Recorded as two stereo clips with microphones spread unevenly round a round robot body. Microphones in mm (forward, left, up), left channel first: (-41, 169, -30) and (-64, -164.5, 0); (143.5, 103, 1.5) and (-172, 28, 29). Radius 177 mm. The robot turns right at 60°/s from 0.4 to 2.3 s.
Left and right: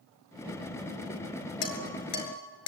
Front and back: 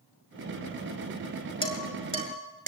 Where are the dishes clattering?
85° left, 6 m; by 2.7 s 130° left, 6 m.